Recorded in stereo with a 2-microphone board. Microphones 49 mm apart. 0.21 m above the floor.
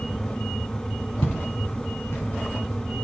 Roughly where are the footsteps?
Left.